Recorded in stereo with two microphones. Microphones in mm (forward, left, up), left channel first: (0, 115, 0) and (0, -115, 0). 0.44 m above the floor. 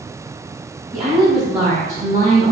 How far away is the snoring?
No snoring in this recording.